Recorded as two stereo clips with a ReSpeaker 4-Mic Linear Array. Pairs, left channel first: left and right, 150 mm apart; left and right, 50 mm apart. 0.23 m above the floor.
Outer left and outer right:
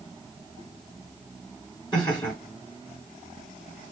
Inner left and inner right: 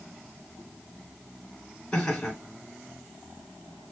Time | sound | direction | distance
1.9 | laughter | 30° left (ahead or behind) | 3 m